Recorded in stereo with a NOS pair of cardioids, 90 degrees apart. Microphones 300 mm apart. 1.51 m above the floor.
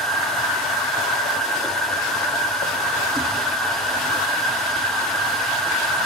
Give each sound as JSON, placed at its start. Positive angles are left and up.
{"t": 0.0, "sound": "a machine running", "azimuth_deg": 0, "distance_m": 2.0}